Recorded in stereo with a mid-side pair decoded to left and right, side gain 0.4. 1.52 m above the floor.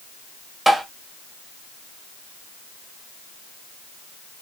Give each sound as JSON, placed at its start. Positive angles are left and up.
{"t": 0.7, "sound": "tapping", "azimuth_deg": -25, "distance_m": 1.7}